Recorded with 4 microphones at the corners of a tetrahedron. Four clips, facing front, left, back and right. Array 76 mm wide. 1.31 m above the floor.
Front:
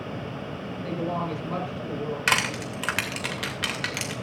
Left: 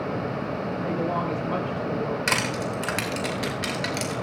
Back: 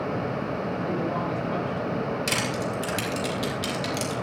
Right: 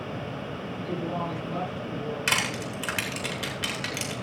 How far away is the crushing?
About 2.5 m.